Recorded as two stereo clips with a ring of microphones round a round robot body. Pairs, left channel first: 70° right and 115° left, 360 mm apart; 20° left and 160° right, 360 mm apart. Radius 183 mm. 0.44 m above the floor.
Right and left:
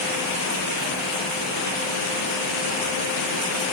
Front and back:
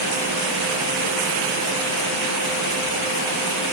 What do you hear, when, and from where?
Only background noise.